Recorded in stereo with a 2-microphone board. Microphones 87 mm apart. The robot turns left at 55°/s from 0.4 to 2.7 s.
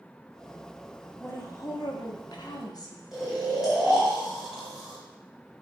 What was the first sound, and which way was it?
A woman speaking, 150° left.